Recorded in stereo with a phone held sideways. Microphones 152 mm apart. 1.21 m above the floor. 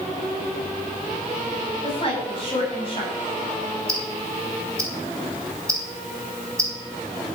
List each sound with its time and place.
1.8 s a woman speaking: 40° left (ahead or behind), 9 m
3.9 s ticking: 20° right (ahead or behind), 4.5 m